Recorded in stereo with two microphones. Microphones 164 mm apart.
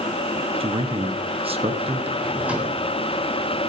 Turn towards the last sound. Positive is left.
turn(degrees=-10)  # may be behind; listen again after turning